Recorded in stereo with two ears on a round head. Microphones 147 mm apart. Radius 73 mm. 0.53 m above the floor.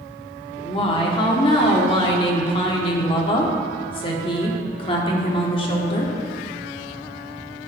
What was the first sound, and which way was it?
A woman speaking, 30° left (ahead or behind).